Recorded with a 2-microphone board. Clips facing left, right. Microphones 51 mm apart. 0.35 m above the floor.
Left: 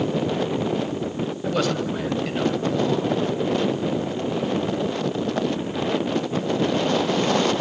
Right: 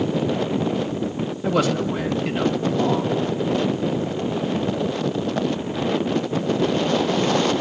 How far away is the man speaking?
About 2 m.